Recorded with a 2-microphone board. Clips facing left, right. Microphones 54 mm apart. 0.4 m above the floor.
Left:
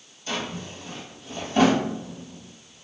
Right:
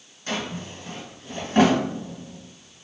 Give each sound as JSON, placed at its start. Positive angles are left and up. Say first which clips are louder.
{"t": 0.3, "sound": "a drawer", "louder": "right 1 dB", "side_deg": -55, "distance_m": 2.0}